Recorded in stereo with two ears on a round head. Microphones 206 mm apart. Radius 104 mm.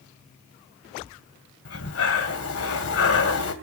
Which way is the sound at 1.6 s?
70° left (ahead or behind).